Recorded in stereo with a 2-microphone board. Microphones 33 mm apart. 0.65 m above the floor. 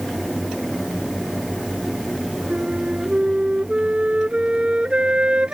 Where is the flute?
40° right (ahead or behind).